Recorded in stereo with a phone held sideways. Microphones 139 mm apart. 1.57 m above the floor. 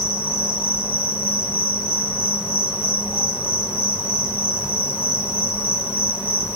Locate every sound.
0.0 s an insect: 10° right (ahead or behind), 0.9 m